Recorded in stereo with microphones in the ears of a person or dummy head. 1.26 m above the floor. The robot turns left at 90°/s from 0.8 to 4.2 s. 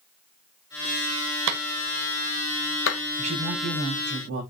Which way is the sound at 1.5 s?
60° right (ahead or behind).